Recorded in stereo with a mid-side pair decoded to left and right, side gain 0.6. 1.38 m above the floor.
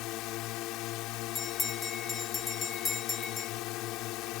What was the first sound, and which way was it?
A drone, 70° left.